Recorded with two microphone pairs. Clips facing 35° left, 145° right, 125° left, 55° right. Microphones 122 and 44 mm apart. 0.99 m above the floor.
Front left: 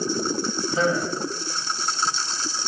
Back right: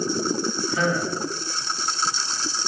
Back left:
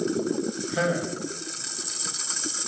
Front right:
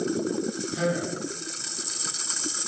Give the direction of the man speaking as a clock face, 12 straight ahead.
9 o'clock.